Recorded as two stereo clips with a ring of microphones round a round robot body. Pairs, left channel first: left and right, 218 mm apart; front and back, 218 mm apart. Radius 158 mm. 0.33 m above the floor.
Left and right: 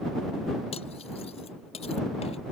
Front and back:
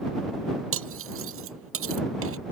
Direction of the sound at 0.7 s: 160° left.